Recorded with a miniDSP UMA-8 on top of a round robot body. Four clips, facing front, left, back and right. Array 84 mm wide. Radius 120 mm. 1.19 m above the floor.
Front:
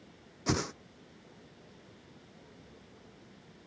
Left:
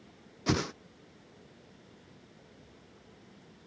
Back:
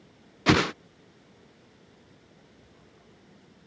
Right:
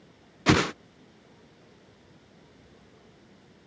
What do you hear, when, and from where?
0.5 s a whoosh: 140° right